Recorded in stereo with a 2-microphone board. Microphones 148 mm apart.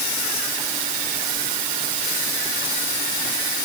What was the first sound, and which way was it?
Only background noise.